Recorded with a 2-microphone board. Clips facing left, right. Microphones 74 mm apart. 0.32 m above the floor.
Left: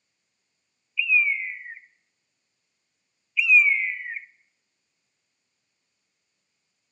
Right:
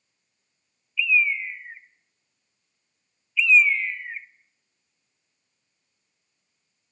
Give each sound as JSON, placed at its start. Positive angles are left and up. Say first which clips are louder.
{"t": 1.0, "sound": "a bird", "louder": "right 1 dB", "side_deg": 15, "distance_m": 0.6}